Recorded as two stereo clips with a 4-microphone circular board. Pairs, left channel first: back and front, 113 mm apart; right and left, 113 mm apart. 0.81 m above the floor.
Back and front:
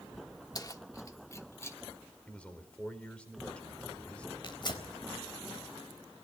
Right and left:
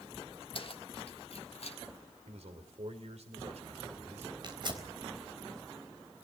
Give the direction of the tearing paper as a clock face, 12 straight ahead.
8 o'clock.